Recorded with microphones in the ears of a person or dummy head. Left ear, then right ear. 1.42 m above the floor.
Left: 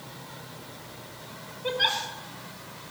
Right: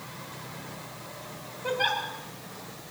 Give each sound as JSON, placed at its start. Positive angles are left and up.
{"t": 1.6, "sound": "a giggle", "side_deg": 25, "distance_m": 2.5}